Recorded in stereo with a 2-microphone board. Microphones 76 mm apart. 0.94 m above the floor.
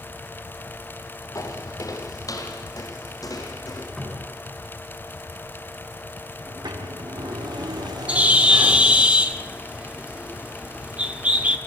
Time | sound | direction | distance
1.4 | footsteps | 50° left (ahead or behind) | 2 m
4.0 | a cupboard door | 5° left (ahead or behind) | 5 m
6.5 | a sliding door | 80° right | 2.5 m
8.1 | a bird | 20° right (ahead or behind) | 1.3 m